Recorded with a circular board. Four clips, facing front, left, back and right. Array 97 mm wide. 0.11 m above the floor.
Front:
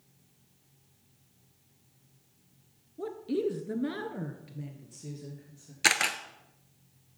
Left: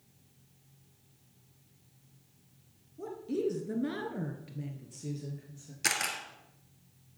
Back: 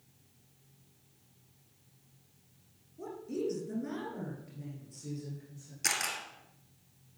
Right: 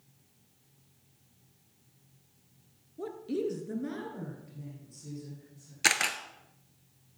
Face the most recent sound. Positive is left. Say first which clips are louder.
# right 4 dB, front 8 dB
turn(degrees=-35)